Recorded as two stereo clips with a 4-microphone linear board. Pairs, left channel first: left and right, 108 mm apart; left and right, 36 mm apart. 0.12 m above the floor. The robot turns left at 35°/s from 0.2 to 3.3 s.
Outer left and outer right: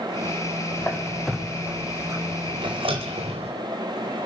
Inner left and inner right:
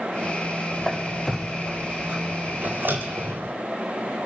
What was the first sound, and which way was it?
A squeak, 15° left (ahead or behind).